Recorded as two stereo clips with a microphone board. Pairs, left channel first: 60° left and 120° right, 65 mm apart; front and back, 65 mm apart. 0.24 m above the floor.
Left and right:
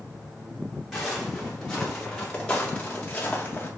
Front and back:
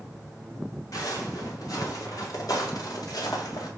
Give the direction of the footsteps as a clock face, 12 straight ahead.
1 o'clock.